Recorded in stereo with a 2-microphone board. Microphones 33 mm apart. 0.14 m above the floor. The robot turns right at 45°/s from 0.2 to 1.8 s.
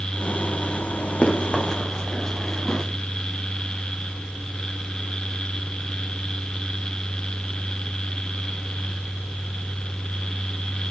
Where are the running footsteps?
40° left (ahead or behind), 3 m; by 2.9 s 15° left (ahead or behind), 1.6 m.